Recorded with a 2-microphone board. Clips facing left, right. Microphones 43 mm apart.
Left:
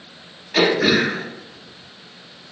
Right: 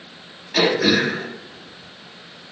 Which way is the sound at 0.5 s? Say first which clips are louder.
Left 1 dB; 20° left (ahead or behind).